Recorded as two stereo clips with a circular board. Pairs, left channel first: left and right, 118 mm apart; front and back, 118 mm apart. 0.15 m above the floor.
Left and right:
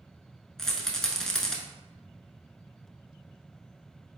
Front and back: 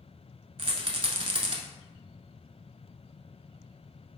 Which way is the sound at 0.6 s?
175° left.